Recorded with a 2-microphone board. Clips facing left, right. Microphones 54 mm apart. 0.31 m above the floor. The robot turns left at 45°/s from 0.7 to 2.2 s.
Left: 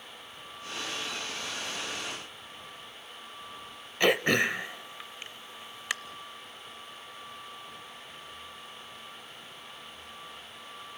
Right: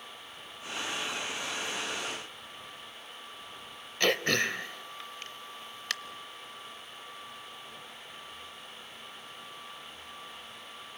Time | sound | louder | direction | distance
4.0 | throat clearing | left 3 dB | 15° left (ahead or behind) | 0.6 m